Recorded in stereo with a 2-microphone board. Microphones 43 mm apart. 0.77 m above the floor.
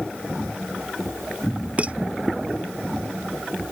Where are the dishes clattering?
30° right (ahead or behind).